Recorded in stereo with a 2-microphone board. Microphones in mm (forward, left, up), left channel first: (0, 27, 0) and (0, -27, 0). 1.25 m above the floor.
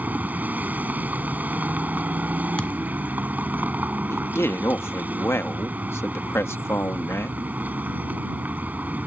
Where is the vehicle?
30° right (ahead or behind).